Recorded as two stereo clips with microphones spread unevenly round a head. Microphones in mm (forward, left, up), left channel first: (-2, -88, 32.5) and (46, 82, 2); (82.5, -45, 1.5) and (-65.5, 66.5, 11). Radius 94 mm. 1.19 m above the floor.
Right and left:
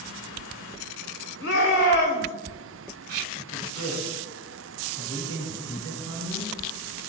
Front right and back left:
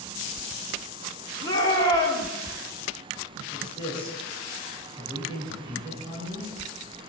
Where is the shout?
100° right, 4.5 m.